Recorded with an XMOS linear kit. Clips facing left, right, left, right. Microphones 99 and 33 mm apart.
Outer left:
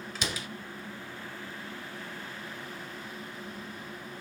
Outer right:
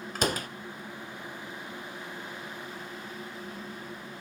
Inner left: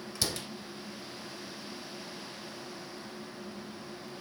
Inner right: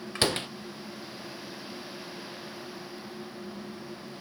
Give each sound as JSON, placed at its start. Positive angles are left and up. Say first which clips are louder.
{"t": 0.1, "sound": "a door slam", "louder": "outer right 8 dB, inner right 8 dB", "side_deg": -45, "distance_m": 0.9}